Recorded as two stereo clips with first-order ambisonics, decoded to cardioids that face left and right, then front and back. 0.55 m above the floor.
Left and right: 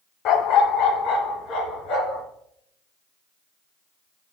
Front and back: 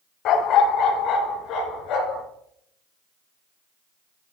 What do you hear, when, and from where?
0.2 s a dog barking: 45° left, 0.8 m